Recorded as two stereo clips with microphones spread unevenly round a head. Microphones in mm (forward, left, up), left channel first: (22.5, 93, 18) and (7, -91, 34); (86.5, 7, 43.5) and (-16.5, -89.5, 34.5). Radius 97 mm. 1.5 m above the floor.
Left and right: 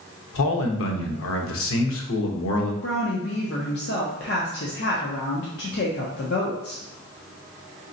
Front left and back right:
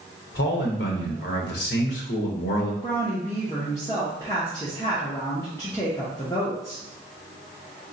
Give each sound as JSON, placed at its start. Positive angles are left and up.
{"t": 0.3, "sound": "a man speaking", "azimuth_deg": 70, "distance_m": 0.8}
{"t": 2.8, "sound": "a woman speaking", "azimuth_deg": 110, "distance_m": 0.6}